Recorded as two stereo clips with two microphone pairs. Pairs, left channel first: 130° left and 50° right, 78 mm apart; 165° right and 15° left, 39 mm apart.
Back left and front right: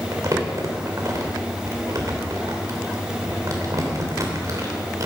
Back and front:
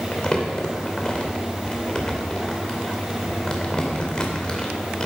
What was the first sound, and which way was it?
Crumpling, 100° right.